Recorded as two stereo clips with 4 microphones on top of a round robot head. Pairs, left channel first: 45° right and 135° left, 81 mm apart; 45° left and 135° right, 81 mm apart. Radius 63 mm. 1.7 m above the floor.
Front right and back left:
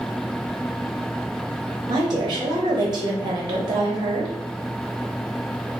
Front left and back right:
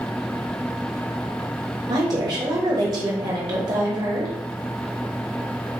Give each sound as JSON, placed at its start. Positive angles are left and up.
{"t": 1.9, "sound": "a woman speaking", "azimuth_deg": 180, "distance_m": 0.9}